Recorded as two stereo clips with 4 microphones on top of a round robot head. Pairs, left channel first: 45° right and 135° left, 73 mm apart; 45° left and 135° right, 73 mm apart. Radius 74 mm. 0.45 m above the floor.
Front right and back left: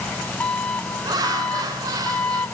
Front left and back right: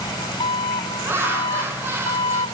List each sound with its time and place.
0.0 s an engine running: 25° left, 1.6 m
1.0 s laughter: 165° left, 6 m